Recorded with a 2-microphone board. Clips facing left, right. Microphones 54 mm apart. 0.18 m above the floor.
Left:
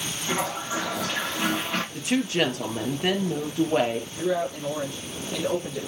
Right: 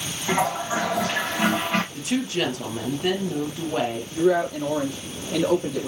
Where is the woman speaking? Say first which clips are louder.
Left 1 dB; 30° left (ahead or behind), 3.5 m.